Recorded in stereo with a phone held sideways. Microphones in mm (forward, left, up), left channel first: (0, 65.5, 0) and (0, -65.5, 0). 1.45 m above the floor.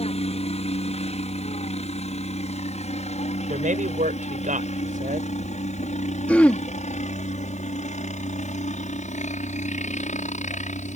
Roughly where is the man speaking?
Right.